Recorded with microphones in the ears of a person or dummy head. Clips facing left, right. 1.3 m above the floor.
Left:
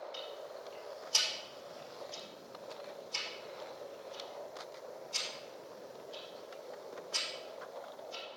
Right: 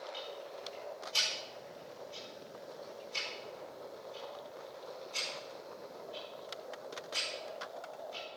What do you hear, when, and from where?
0.1 s ticking: 85° left, 5 m